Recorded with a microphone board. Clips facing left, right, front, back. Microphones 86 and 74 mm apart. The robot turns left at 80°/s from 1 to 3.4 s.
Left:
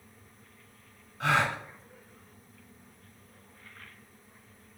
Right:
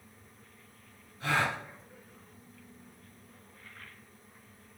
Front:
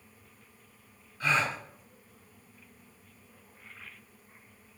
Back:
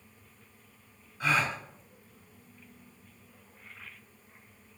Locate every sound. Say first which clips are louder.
1.2 s a gasp: left 3 dB, even; 110° left, 1.7 m; by 1.6 s 80° left, 1.7 m